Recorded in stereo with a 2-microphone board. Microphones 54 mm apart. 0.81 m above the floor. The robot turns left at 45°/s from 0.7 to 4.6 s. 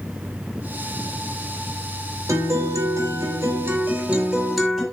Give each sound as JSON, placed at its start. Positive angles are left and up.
{"t": 2.3, "sound": "a guitar", "azimuth_deg": -80, "distance_m": 3.0}